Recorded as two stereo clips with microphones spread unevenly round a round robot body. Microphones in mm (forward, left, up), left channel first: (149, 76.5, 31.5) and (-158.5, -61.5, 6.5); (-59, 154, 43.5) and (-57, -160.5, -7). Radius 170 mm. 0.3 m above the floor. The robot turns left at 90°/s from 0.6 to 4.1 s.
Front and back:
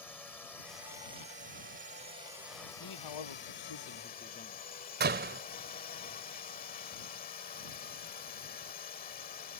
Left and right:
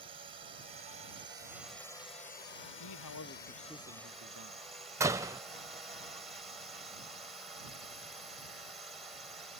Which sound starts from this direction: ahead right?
A drone, at 0.0 s.